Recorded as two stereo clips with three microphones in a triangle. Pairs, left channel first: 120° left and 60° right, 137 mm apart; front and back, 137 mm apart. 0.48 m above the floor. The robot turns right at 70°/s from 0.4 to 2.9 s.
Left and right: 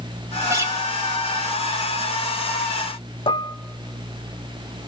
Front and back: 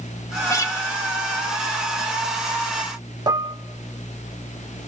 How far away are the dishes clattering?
About 0.7 m.